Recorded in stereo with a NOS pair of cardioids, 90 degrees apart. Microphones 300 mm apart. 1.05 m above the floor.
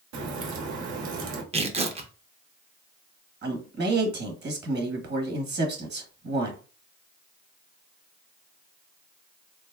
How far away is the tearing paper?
About 0.6 m.